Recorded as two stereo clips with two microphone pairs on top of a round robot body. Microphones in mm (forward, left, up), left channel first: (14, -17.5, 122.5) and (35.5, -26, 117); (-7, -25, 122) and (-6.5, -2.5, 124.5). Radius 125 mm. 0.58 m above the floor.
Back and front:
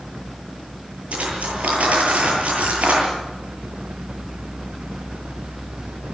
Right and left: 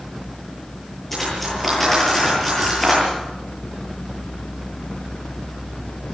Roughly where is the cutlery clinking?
Ahead.